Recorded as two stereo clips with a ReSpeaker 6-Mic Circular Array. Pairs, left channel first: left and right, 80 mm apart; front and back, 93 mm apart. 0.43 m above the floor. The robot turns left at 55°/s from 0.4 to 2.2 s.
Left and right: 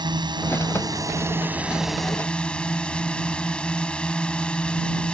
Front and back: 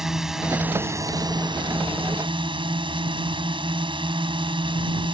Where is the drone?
95° right; by 5.2 s 165° left.